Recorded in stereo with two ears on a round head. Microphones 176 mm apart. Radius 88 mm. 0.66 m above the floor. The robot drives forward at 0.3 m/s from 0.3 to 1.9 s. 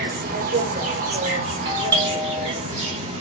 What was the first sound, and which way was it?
An insect, 45° right (ahead or behind).